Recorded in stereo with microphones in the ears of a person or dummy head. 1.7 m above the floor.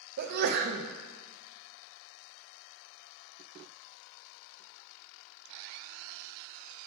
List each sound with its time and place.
0.2 s a sneeze: 55° right (ahead or behind), 0.6 m